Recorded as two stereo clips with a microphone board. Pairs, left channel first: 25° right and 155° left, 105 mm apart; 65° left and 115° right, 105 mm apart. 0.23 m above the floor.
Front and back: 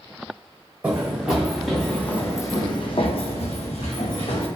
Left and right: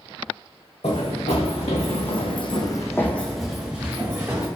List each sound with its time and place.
0.8 s running footsteps: 80° left, 1.2 m; by 4.5 s 45° right, 1.1 m